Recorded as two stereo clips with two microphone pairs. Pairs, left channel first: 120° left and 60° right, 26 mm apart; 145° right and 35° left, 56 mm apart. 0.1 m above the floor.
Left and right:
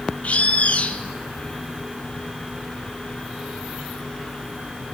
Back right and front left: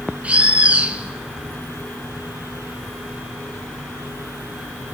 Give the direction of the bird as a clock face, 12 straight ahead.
8 o'clock.